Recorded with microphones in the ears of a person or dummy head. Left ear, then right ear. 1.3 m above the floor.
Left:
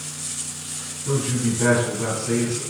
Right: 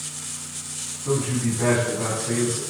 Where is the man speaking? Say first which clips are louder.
Even; 20° right (ahead or behind), 1.5 m.